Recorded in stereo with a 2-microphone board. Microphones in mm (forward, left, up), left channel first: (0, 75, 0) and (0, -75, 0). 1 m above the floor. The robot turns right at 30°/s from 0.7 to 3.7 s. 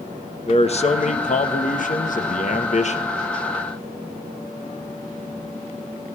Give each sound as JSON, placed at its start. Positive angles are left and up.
{"t": 0.5, "sound": "a man speaking", "azimuth_deg": 55, "distance_m": 1.2}